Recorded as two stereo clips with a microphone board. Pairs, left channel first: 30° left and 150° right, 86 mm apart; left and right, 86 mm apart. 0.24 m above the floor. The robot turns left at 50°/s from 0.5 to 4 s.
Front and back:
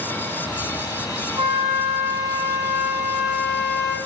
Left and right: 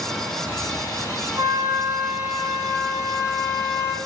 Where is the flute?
135° right, 0.5 m; by 4.0 s 95° left, 0.5 m.